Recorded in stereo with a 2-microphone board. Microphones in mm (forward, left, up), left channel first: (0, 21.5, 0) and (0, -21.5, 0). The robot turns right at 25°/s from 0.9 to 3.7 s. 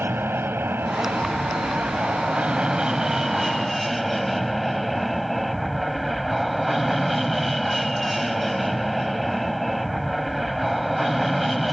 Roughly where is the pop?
No pop in this recording.